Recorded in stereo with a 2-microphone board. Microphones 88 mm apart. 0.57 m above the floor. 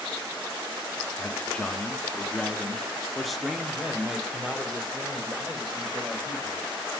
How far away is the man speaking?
About 1.2 m.